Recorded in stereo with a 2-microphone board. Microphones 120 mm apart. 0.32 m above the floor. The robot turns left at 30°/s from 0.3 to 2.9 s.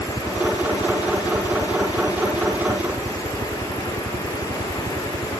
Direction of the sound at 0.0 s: 15° right.